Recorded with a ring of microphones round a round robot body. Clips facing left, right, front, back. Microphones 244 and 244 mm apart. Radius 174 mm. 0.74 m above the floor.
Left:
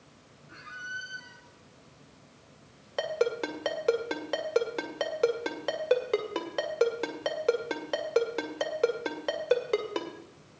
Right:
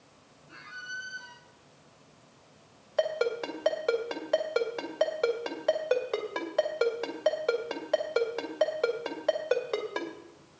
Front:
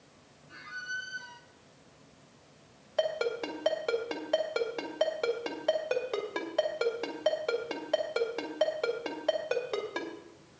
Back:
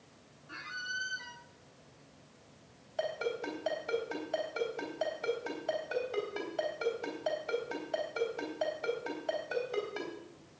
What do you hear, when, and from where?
0.5 s a squeak: 165° left, 0.9 m
3.0 s a ringtone: 40° left, 2.0 m